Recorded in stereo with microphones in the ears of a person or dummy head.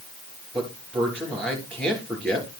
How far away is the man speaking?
About 3 m.